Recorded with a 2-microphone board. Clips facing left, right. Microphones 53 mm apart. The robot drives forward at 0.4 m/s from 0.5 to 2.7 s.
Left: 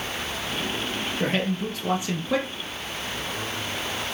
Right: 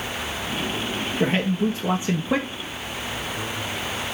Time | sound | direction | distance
1.2 | a man speaking | 15° right (ahead or behind) | 2 m